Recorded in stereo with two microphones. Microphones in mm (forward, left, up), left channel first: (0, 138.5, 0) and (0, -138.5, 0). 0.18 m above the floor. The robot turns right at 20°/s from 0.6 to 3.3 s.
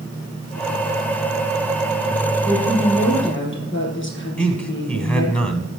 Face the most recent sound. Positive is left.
turn(degrees=5)  # may be behind; listen again after turning